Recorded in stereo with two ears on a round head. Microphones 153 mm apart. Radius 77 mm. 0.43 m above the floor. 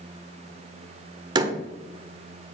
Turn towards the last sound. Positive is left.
turn(degrees=-25)  # may be behind; listen again after turning